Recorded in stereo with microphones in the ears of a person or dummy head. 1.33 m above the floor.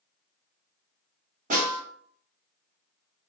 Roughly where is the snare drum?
Right.